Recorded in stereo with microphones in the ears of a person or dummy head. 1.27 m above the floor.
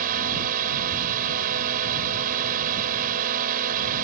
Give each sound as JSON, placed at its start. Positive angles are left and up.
{"t": 0.0, "sound": "a drone", "side_deg": -50}